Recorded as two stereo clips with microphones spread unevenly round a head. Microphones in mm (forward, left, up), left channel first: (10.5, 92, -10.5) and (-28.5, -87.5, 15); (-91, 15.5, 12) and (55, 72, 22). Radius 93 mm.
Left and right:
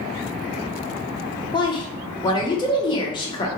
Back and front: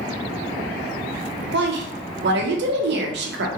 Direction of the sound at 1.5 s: 15° left.